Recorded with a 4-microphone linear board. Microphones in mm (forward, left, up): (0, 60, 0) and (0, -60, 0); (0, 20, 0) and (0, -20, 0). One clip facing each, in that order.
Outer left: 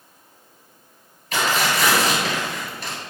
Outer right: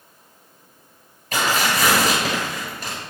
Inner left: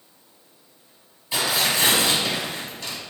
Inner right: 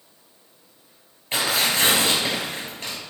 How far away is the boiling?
No boiling in this recording.